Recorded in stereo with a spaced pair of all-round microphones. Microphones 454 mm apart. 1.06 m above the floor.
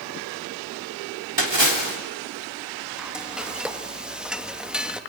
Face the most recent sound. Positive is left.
turn(degrees=0)  # may be behind; listen again after turning